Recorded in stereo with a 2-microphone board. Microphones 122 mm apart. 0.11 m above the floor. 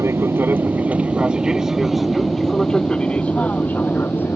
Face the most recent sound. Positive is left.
turn(degrees=15)  # may be behind; listen again after turning